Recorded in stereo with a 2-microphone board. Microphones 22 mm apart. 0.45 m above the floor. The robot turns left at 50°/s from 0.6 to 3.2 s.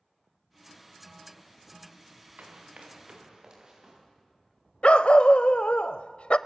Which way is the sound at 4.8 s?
65° left (ahead or behind).